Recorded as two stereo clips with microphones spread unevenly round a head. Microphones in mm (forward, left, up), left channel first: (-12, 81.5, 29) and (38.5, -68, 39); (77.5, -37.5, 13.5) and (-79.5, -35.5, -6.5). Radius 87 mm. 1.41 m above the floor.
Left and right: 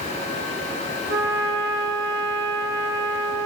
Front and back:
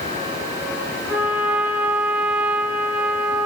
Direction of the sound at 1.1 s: 100° right.